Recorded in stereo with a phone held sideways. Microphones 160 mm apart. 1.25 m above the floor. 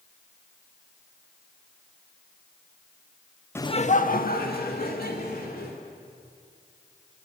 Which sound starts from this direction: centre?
Laughter, at 3.5 s.